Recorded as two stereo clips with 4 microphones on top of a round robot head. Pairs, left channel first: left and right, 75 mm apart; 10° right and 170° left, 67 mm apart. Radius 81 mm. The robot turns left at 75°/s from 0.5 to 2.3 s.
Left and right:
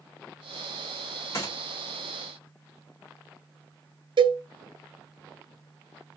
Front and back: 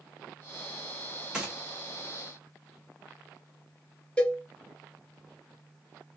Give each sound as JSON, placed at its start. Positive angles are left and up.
{"t": 1.3, "sound": "a gunshot", "azimuth_deg": 100, "distance_m": 0.7}
{"t": 4.2, "sound": "a cowbell", "azimuth_deg": -90, "distance_m": 0.5}